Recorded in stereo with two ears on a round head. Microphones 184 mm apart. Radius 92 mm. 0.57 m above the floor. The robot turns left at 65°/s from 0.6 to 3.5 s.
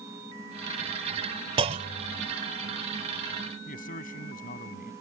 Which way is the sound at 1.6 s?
30° right.